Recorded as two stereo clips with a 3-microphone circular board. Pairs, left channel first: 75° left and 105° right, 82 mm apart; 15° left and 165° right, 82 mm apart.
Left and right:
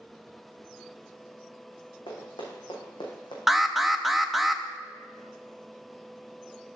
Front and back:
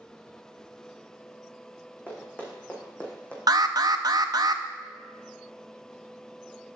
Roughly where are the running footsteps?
Left.